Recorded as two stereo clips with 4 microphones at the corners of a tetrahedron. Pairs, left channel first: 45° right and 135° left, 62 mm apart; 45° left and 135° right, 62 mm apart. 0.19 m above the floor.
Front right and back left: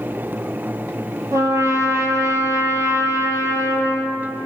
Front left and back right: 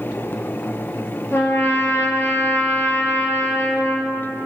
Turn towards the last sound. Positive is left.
turn(degrees=100)